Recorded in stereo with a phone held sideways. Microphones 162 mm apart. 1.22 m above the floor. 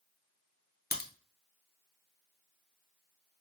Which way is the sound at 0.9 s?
80° left.